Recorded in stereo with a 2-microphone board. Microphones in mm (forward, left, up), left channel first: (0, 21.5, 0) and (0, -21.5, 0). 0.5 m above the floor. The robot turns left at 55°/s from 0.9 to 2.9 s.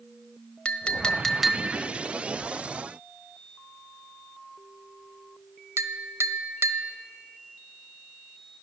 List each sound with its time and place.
0.7 s a clink: 25° left (ahead or behind), 1.2 m; by 6.9 s 75° right (ahead or behind), 1.2 m